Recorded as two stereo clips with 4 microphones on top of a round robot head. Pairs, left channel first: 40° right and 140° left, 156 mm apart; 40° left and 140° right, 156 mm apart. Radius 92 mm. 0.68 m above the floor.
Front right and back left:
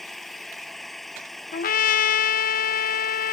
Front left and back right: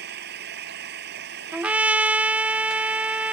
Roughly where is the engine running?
Behind right.